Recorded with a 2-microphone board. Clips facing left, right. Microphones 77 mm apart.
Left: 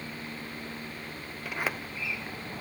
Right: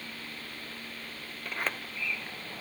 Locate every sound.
1.4 s a sliding door: 10° left (ahead or behind)